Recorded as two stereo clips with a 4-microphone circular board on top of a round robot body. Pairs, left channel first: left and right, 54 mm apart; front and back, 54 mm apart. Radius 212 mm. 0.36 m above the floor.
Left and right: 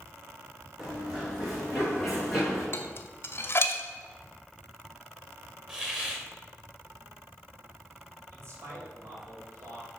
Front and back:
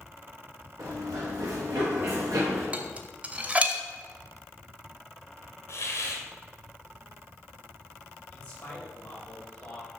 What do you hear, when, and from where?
0.8 s running footsteps: straight behind, 3.5 m
2.7 s dishes clattering: 120° left, 0.9 m
5.7 s a hiss: 20° right, 1.9 m
8.3 s a man speaking: 65° right, 3 m